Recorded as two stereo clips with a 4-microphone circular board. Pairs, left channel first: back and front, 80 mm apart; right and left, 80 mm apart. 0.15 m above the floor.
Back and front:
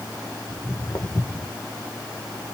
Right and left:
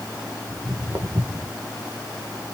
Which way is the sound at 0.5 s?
150° left.